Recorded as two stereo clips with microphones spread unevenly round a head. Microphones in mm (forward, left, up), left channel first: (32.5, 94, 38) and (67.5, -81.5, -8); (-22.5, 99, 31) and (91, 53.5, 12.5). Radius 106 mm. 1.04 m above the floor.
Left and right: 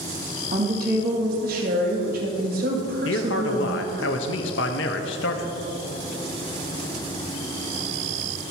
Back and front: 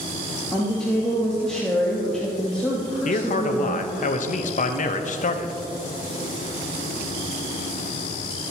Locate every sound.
0.5 s a woman speaking: 110° right, 2.5 m
3.0 s a man speaking: 140° left, 0.9 m